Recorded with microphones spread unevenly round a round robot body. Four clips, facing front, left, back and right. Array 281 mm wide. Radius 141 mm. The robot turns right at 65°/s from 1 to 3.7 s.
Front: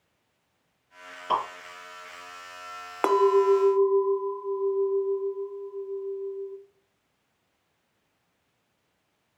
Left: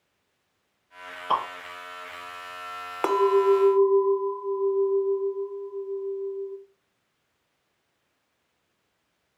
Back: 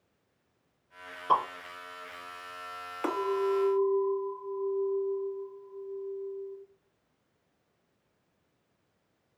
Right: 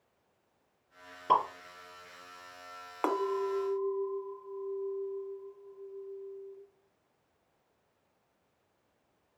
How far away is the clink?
About 0.6 m.